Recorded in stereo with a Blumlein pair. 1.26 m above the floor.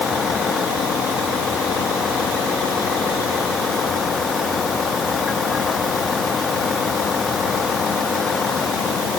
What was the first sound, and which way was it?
A vehicle, 20° left.